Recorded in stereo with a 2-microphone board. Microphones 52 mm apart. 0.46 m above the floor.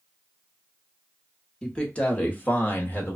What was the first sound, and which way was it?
A man speaking, 15° left (ahead or behind).